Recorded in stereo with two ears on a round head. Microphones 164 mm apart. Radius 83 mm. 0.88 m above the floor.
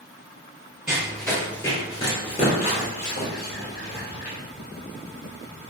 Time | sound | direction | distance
0.9 | running footsteps | 5° right (ahead or behind) | 1.2 m